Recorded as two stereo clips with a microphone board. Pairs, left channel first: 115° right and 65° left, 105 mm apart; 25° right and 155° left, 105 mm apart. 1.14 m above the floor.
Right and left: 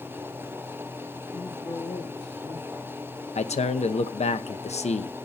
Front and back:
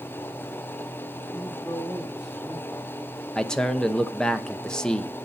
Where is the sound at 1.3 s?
110° right, 7 m.